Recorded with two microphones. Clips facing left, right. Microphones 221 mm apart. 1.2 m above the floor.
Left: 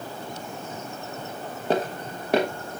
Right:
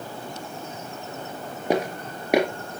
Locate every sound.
1.7 s footsteps: 15° right (ahead or behind), 1.3 m